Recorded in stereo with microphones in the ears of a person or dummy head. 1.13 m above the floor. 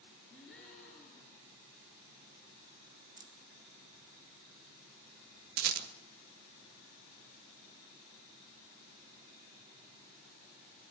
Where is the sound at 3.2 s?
20° right (ahead or behind), 0.8 m.